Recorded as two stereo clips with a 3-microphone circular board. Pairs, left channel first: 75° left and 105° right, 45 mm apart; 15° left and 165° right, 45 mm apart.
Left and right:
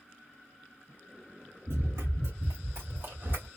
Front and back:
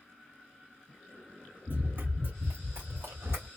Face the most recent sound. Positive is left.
turn(degrees=-150)